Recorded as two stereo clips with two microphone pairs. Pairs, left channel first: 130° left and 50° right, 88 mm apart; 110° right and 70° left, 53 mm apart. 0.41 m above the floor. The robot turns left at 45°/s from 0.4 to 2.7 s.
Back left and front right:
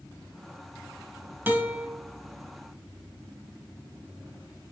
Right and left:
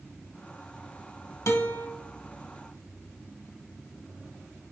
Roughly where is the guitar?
Behind right.